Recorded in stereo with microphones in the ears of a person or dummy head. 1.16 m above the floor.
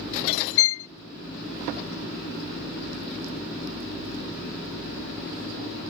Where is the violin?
75° left (ahead or behind).